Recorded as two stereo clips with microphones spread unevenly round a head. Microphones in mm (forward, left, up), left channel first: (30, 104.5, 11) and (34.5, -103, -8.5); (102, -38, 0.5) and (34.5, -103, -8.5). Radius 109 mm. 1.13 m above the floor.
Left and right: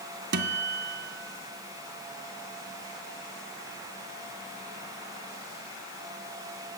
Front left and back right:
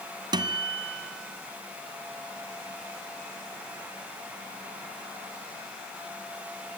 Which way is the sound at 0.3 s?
115° right.